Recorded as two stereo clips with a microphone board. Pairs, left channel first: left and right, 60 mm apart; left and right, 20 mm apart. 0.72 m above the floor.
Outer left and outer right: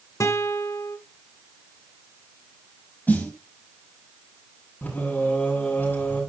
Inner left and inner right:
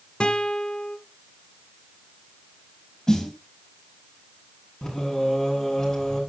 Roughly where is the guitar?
Left.